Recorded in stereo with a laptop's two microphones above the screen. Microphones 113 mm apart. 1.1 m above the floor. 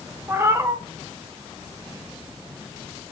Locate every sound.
0.3 s a cat meowing: 20° right (ahead or behind), 0.9 m